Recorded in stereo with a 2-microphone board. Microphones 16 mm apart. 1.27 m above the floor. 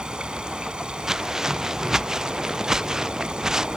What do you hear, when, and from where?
0.0 s running water: 65° right (ahead or behind)
1.1 s footsteps: 35° right (ahead or behind); by 3.7 s 40° right (ahead or behind)